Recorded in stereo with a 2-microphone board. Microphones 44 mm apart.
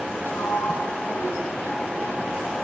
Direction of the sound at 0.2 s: 55° left (ahead or behind).